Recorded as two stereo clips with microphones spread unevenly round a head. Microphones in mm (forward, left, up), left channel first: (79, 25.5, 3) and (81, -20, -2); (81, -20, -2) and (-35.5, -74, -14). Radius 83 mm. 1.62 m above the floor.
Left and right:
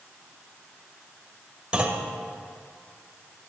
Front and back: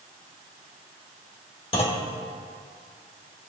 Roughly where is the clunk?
Ahead.